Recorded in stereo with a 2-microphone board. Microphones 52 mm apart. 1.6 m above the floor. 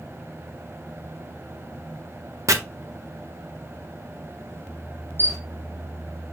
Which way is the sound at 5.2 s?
50° right (ahead or behind).